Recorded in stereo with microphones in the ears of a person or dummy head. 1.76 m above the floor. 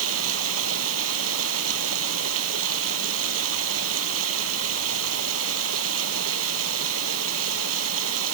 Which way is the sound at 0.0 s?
85° right.